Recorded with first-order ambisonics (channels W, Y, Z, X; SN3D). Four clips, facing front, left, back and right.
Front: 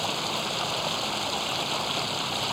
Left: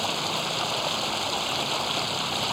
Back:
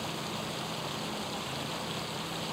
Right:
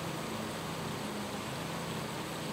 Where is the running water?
55° left.